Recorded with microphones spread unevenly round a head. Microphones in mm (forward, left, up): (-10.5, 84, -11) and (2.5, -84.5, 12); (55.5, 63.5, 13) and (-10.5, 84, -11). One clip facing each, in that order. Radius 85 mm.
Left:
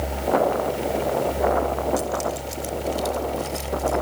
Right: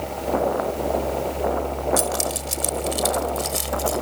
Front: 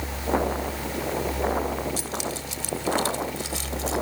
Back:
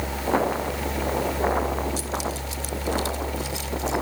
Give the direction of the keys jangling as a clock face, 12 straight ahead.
2 o'clock.